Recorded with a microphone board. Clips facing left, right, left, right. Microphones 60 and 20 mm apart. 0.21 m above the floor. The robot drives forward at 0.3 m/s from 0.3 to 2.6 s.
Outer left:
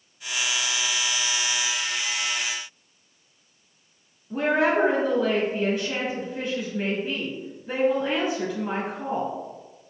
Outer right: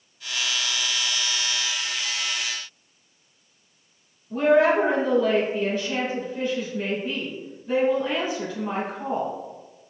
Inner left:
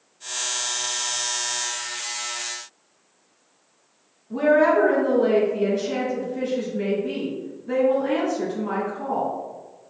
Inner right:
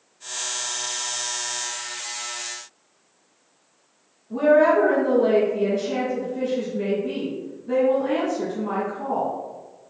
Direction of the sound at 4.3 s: 10° left (ahead or behind).